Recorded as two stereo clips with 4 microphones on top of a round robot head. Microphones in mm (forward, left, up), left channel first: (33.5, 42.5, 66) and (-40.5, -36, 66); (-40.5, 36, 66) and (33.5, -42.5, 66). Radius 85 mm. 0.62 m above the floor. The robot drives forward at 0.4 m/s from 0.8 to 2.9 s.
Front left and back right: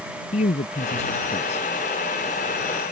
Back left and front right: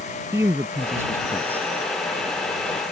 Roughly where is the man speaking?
Ahead left.